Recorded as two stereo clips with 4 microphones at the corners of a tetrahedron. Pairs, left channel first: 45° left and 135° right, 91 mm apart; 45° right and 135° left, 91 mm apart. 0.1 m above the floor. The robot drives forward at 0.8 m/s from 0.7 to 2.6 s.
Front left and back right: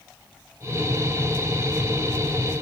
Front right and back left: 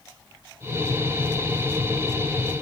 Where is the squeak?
I don't hear a squeak.